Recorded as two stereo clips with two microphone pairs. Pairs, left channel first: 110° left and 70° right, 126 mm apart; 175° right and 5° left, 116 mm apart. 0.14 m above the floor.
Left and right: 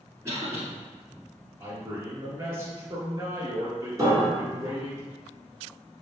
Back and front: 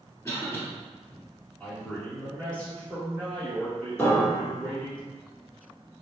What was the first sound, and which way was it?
A cough, 125° right.